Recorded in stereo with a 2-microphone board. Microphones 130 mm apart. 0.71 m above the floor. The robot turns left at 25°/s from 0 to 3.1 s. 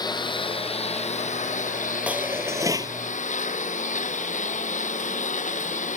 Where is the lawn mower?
150° left; by 6.0 s 70° left.